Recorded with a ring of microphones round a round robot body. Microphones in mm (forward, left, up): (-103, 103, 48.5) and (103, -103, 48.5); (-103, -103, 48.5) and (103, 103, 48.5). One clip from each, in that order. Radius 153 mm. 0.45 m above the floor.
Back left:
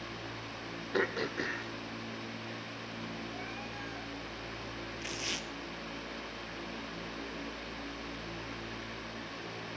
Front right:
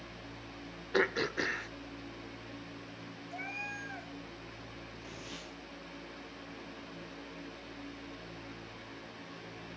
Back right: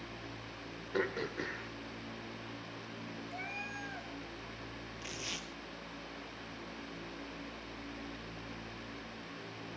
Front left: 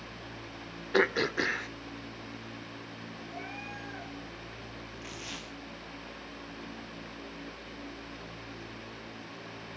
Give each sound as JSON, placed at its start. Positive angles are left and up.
{"t": 0.9, "sound": "throat clearing", "azimuth_deg": 20, "distance_m": 1.0}
{"t": 3.3, "sound": "a cat meowing", "azimuth_deg": -75, "distance_m": 2.5}
{"t": 5.0, "sound": "tearing paper", "azimuth_deg": 155, "distance_m": 2.0}